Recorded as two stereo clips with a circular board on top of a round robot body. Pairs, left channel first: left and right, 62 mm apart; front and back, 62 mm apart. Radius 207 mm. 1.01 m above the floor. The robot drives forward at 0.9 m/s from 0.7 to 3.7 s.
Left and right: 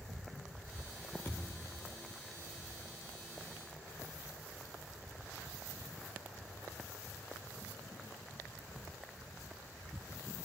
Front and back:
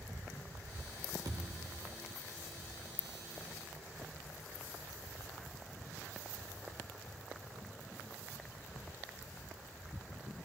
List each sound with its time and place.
1.2 s a thud: 155° left, 0.8 m; by 1.9 s 165° left, 1.3 m